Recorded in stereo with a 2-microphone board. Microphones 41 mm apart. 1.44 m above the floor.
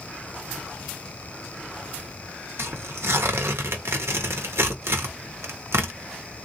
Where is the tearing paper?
85° right, 1.0 m.